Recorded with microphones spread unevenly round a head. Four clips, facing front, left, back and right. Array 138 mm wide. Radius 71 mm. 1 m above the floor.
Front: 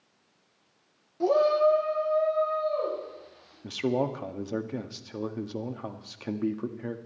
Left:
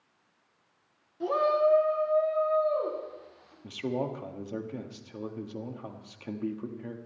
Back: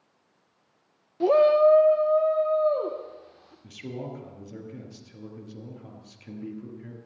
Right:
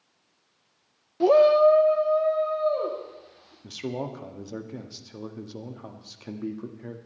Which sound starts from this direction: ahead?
A man speaking, at 3.6 s.